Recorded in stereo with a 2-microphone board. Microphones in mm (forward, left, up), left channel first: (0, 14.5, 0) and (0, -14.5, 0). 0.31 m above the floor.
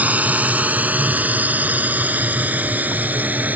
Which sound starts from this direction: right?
A drone, at 0.0 s.